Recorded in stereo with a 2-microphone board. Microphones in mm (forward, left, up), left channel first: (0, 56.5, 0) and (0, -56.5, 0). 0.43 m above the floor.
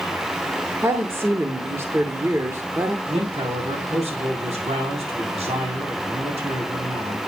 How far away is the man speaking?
About 3.5 m.